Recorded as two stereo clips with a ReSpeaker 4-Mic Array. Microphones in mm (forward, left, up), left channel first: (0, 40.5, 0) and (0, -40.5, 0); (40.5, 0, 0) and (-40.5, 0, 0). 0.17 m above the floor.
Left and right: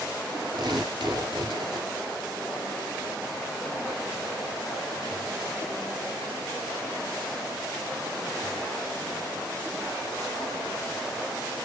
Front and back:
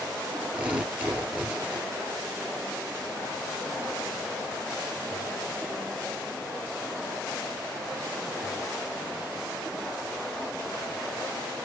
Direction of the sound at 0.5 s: 105° right.